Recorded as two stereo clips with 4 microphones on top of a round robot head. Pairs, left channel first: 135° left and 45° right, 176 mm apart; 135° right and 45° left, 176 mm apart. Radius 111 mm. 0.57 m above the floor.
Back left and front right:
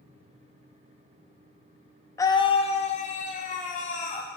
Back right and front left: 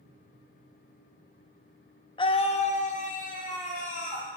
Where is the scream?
165° right, 0.6 m; by 4.3 s straight behind, 2 m.